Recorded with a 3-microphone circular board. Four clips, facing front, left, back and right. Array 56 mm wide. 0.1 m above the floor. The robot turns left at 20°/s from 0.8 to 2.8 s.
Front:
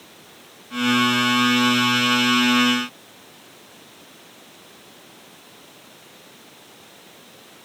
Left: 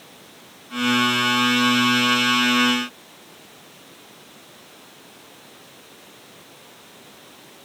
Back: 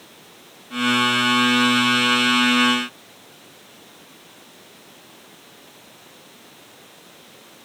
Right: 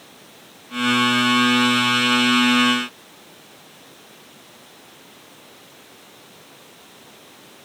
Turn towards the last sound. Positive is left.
No sound to turn to.